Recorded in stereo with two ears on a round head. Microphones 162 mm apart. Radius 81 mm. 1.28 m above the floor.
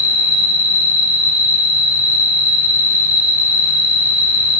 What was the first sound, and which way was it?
An insect, 15° left (ahead or behind).